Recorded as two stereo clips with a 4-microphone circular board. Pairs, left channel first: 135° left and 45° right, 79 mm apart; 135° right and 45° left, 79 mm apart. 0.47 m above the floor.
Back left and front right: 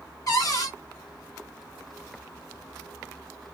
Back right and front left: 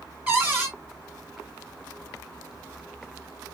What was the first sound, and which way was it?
A cupboard door, 110° left.